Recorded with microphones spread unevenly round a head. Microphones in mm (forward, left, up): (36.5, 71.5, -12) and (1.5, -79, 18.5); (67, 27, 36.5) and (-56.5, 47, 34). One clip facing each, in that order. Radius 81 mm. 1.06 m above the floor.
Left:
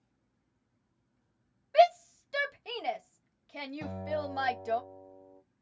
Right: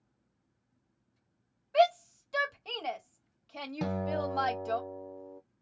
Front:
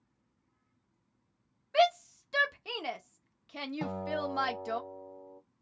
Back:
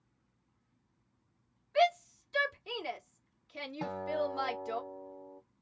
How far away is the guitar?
About 0.5 m.